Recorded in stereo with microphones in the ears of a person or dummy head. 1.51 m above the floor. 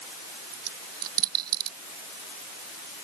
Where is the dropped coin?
50° right (ahead or behind).